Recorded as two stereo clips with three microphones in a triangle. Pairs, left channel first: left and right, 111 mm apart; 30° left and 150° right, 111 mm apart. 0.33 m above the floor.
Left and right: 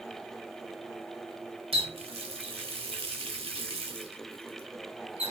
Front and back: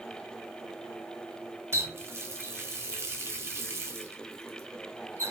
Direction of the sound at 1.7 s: 90° right.